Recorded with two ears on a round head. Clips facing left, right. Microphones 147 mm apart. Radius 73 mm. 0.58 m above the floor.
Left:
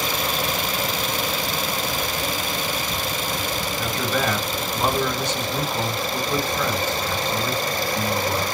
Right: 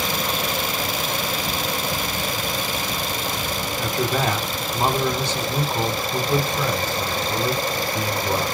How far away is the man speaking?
About 1.3 m.